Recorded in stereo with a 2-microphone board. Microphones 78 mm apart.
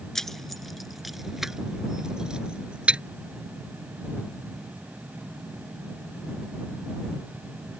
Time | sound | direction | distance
0.1 | keys jangling | 5° left (ahead or behind) | ?